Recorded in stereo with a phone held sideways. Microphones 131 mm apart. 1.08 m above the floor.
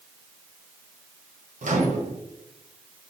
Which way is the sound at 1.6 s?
70° right (ahead or behind).